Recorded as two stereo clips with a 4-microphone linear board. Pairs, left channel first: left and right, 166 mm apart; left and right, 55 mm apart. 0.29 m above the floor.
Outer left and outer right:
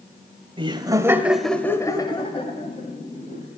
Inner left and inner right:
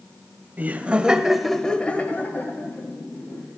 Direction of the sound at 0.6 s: 30° right (ahead or behind).